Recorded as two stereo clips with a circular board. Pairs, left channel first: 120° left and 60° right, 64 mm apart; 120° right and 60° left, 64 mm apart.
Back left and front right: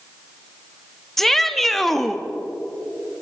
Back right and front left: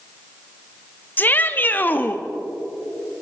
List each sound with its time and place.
1.2 s a shout: 155° right, 0.9 m